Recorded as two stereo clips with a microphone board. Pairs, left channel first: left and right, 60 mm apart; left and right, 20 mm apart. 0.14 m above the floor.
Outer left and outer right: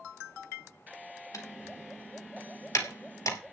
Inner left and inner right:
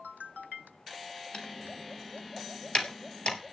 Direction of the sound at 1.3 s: 60° left (ahead or behind).